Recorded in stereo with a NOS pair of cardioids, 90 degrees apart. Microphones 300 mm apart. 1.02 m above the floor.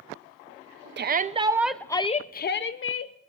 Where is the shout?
40° right, 0.7 m; by 3.1 s 50° left, 1.0 m.